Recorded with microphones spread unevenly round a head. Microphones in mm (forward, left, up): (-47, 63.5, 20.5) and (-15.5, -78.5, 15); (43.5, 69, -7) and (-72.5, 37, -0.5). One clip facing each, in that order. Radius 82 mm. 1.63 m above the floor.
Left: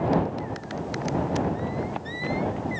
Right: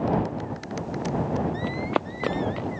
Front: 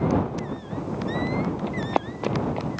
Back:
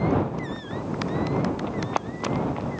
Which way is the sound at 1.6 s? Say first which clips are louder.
Right 3 dB, front 2 dB; 50° right.